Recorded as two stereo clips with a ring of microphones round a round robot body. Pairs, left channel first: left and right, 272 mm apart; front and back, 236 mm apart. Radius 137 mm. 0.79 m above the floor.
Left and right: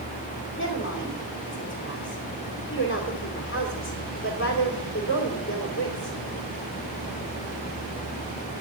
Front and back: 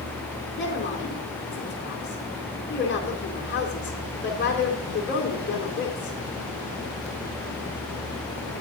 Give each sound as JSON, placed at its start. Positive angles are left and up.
{"t": 0.6, "sound": "a woman speaking", "azimuth_deg": 50, "distance_m": 2.5}